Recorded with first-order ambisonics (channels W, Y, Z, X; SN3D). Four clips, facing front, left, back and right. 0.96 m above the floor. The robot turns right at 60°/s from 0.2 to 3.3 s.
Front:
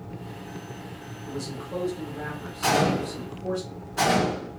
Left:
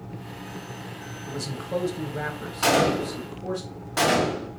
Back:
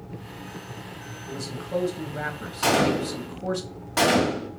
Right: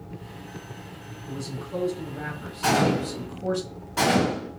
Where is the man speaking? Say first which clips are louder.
Left 3 dB, back 2 dB; 85° left, 1.3 m; by 3.6 s 155° right, 1.3 m.